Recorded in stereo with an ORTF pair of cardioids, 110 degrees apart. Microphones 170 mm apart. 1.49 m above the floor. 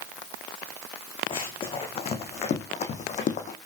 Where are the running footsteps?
35° left, 5 m; by 3.6 s 55° left, 3.5 m.